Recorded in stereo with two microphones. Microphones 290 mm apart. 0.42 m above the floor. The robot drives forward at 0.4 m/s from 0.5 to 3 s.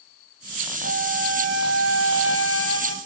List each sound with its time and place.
0.8 s a flute: 55° left (ahead or behind), 2.5 m; by 3.0 s 45° left (ahead or behind), 3 m